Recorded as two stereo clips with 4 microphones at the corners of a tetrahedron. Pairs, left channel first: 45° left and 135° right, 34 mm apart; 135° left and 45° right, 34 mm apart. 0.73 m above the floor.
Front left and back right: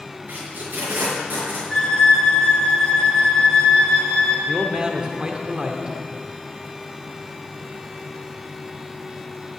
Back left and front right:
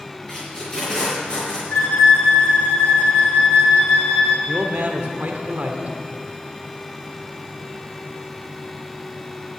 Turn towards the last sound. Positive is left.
turn(degrees=-70)